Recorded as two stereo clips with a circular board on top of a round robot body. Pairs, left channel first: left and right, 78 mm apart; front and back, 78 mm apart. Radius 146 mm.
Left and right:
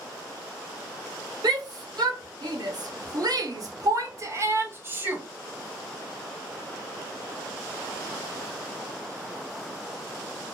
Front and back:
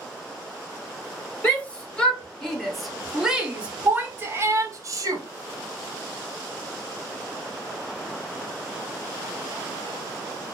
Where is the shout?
70° right, 1.9 m; by 5.2 s 155° right, 1.3 m.